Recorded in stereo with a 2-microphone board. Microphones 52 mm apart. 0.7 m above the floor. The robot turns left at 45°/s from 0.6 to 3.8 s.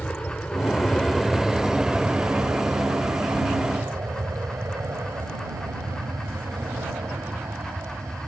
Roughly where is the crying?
I don't hear crying.